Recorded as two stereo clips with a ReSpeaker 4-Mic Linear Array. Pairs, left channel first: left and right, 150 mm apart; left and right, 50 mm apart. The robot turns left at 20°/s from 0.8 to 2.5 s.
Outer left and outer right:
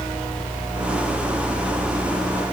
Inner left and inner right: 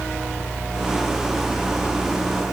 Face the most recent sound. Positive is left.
No sound to turn to.